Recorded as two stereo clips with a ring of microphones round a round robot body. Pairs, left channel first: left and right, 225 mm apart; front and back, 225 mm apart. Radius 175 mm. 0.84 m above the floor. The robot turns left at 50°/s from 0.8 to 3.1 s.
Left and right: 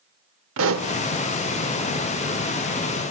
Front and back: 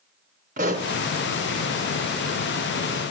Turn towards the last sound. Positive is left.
turn(degrees=130)